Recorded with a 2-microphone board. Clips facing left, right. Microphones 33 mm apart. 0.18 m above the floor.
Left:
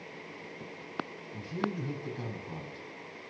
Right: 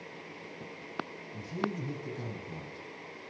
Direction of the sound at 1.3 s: 30° left (ahead or behind).